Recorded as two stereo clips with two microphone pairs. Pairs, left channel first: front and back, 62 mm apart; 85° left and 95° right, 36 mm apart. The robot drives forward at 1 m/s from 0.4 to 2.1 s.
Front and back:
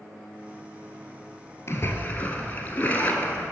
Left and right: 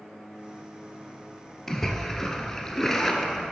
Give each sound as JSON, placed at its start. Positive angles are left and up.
{"t": 1.7, "sound": "a splash", "azimuth_deg": 10, "distance_m": 1.2}